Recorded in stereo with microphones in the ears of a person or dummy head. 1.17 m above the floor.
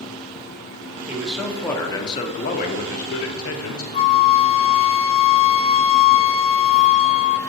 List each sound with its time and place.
1.1 s a man speaking: 5° right (ahead or behind), 1.3 m; by 3.8 s 80° left, 1.4 m
3.9 s a flute: 40° left (ahead or behind), 0.6 m